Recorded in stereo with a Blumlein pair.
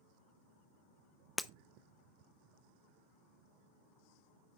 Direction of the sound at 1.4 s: 5° left.